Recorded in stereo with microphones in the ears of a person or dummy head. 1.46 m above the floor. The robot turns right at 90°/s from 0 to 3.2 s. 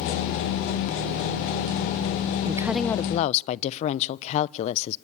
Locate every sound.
2.5 s a woman speaking: 25° right, 0.6 m; by 5.0 s 40° left, 0.6 m